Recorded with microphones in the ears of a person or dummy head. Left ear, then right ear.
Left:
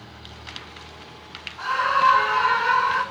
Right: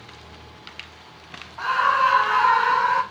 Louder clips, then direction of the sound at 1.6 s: Right 1 dB; 25° right (ahead or behind).